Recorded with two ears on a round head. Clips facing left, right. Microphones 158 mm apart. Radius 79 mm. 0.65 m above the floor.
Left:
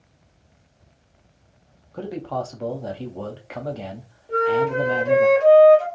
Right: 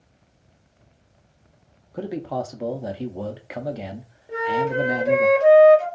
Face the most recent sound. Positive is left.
turn(degrees=-15)  # may be behind; listen again after turning